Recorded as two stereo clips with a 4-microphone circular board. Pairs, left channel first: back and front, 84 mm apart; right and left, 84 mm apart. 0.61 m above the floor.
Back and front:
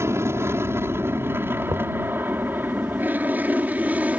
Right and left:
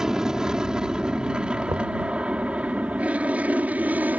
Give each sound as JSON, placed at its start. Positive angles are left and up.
{"t": 0.0, "sound": "an aircraft", "azimuth_deg": 15}
{"t": 1.7, "sound": "knocking", "azimuth_deg": 45}